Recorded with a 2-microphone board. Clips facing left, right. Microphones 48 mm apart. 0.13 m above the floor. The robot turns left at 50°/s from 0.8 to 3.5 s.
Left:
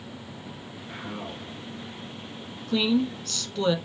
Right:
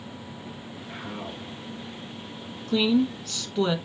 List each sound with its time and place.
0.9 s a man speaking: 175° right, 2 m; by 1.6 s 150° left, 2 m
2.7 s a woman speaking: centre (ahead or behind), 1.1 m; by 3.8 s 10° right (ahead or behind), 1.1 m